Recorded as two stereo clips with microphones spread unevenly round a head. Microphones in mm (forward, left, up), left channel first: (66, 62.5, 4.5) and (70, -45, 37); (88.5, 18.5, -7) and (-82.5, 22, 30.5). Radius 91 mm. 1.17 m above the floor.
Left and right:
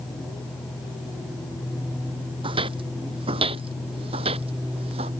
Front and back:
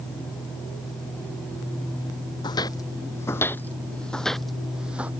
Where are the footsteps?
75° right; by 5.1 s 105° right.